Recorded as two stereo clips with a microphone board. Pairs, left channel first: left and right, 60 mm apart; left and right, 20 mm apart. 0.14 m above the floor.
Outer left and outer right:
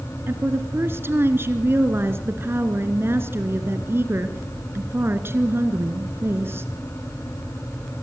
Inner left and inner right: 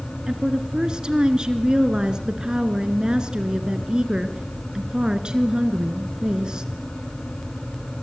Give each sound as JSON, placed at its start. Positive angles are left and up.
{"t": 0.3, "sound": "a woman speaking", "side_deg": -40, "distance_m": 1.9}